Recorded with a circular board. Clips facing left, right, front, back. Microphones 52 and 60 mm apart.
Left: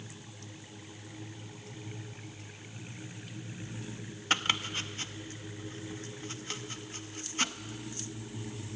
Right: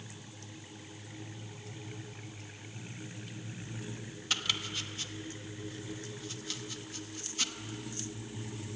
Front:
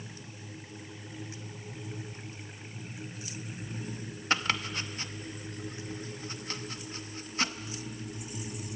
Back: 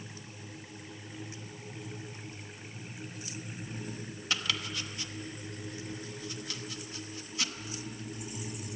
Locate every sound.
4.3 s chopping: 45° left, 0.9 m